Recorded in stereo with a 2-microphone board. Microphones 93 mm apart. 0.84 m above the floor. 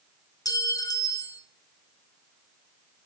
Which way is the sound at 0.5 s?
40° left (ahead or behind).